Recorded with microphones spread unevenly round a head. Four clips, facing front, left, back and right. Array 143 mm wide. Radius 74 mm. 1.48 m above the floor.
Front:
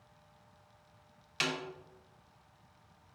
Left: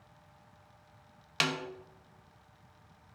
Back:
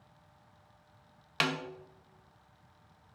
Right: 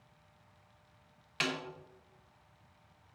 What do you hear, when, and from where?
1.4 s a snare drum: 150° left, 1.1 m